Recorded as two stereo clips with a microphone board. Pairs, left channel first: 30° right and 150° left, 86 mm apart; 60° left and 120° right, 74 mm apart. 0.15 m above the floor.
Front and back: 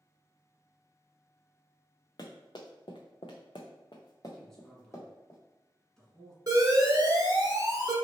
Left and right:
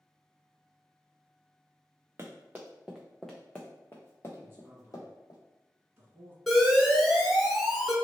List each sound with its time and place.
2.2 s running footsteps: 65° right, 1.0 m; by 5.4 s 30° left, 1.6 m
4.4 s a man speaking: 110° right, 1.5 m
6.5 s an alarm: 145° left, 1.0 m